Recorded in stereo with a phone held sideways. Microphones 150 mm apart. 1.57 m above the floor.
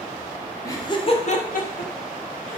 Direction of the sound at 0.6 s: 20° left (ahead or behind).